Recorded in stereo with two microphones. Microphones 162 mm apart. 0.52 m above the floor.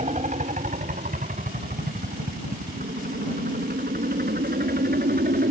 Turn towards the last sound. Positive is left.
turn(degrees=-70)  # may be behind; listen again after turning